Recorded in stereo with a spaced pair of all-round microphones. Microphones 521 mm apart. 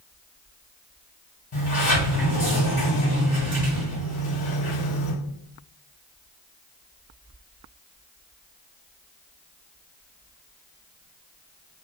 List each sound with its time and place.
1.5 s a sliding door: 45° left (ahead or behind), 1.3 m